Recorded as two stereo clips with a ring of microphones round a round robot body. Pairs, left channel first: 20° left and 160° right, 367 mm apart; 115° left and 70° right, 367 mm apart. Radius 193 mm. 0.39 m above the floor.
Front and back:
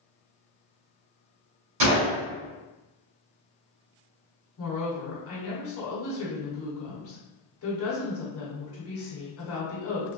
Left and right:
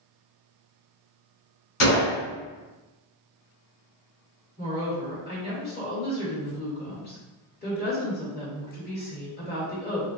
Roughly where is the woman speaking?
Ahead left.